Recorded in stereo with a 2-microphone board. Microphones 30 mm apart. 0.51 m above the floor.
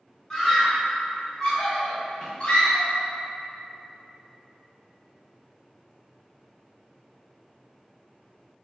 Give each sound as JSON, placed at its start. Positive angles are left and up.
{"t": 0.3, "sound": "a scream", "side_deg": 15, "distance_m": 1.4}